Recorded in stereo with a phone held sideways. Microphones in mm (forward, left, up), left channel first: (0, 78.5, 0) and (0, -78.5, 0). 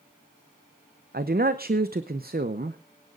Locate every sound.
1.1 s a man speaking: 80° right, 0.7 m